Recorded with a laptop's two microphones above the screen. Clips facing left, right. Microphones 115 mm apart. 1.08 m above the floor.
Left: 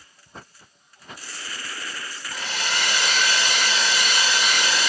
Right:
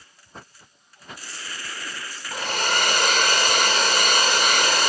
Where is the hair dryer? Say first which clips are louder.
Right 5 dB; 50° right (ahead or behind), 1.2 m.